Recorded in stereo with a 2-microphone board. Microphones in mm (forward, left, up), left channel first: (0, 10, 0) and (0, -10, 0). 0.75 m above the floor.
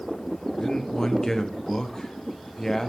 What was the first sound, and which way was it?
A man speaking, 30° left (ahead or behind).